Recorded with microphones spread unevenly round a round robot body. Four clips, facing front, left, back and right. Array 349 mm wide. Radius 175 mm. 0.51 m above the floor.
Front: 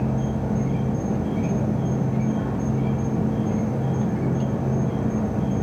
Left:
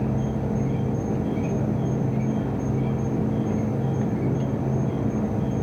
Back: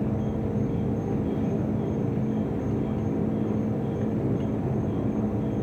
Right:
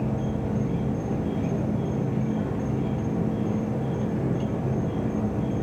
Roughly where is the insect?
Ahead.